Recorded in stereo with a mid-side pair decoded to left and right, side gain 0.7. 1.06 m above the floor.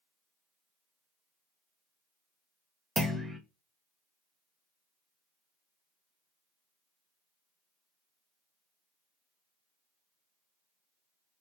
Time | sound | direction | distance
3.0 | a clunk | 10° right | 0.8 m